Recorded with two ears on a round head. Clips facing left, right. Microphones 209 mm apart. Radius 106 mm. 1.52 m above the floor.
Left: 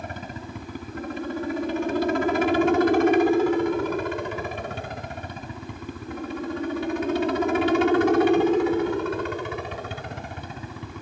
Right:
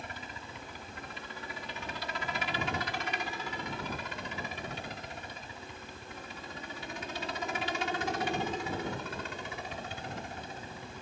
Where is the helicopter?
40° left (ahead or behind); by 11.0 s 50° left (ahead or behind).